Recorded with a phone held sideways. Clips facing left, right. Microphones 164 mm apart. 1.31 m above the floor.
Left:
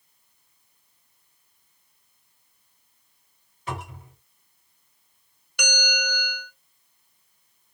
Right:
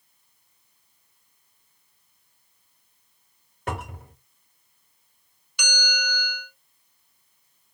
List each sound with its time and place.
3.7 s a cupboard door: 55° right (ahead or behind), 1.2 m
5.6 s a bell: 55° left (ahead or behind), 0.8 m